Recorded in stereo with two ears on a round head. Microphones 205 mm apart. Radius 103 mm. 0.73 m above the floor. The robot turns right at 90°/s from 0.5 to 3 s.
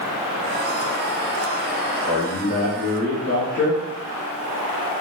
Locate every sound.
2.1 s a man speaking: straight ahead, 1.1 m; by 3.8 s 80° left, 1.1 m